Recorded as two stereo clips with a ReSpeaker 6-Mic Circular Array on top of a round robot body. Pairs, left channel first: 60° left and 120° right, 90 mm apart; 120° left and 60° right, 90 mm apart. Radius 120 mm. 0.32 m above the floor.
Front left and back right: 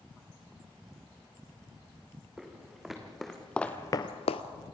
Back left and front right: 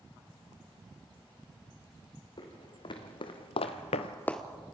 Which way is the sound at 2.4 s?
155° left.